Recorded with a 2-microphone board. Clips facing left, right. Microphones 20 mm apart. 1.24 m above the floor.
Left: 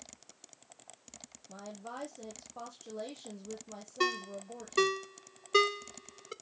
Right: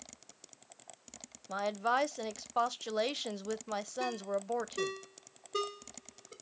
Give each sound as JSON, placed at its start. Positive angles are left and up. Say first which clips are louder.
{"t": 1.5, "sound": "a woman speaking", "louder": "right 13 dB", "side_deg": -60, "distance_m": 0.7}
{"t": 4.0, "sound": "a ringtone", "louder": "left 6 dB", "side_deg": 65, "distance_m": 0.7}